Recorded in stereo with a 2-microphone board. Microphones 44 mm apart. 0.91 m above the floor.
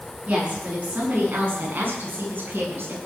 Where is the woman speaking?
30° right (ahead or behind), 9.5 m; by 3.0 s 55° right (ahead or behind), 7.5 m.